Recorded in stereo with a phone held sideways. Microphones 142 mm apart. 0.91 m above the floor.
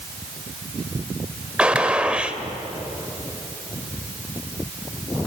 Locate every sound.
1.6 s a gunshot: 10° right (ahead or behind), 1.1 m